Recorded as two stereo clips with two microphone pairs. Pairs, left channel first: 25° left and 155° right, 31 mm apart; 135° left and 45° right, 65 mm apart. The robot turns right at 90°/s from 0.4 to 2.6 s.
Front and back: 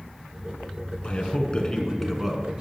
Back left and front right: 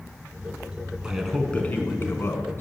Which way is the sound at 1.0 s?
25° left.